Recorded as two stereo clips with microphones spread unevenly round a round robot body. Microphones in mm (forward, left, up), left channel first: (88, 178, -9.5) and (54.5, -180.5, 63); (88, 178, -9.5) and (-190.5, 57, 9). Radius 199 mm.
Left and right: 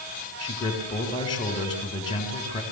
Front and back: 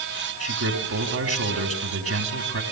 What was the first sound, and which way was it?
A man speaking, 160° left.